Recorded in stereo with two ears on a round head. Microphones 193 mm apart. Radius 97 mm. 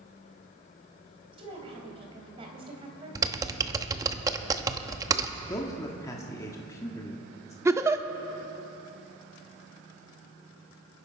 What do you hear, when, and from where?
1.3 s a woman speaking: 25° right (ahead or behind), 3.5 m
3.1 s typing on a keyboard: 15° right (ahead or behind), 0.8 m
5.5 s a man speaking: 15° left (ahead or behind), 1.5 m
7.7 s a giggle: 15° right (ahead or behind), 0.7 m